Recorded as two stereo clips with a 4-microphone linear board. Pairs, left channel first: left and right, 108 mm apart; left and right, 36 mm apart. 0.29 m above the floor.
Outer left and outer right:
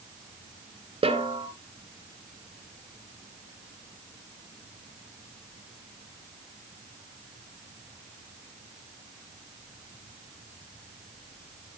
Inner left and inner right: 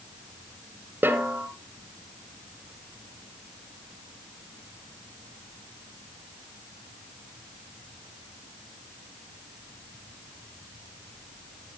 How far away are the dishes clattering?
I don't hear dishes clattering.